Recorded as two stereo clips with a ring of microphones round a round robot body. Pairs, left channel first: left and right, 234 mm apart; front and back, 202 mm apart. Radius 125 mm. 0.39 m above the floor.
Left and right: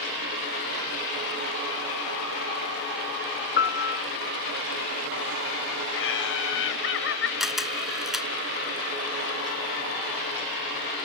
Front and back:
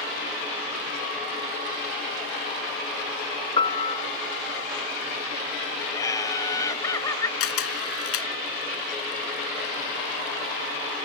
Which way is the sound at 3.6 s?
60° left.